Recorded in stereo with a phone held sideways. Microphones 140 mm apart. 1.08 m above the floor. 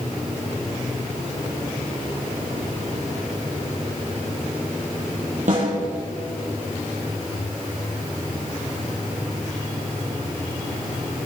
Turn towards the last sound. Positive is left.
turn(degrees=-65)  # may be behind; listen again after turning